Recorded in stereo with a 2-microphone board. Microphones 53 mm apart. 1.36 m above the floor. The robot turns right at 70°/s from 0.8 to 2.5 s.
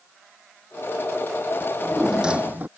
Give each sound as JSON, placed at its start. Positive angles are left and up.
{"t": 1.6, "sound": "a drawer", "azimuth_deg": 150}